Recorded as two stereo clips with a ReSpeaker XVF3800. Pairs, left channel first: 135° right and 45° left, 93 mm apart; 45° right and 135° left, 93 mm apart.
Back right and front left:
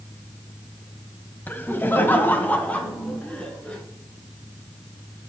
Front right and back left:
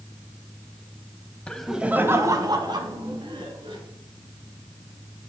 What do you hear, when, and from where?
1.5 s laughter: 100° right, 1.0 m; by 3.8 s 150° left, 2.5 m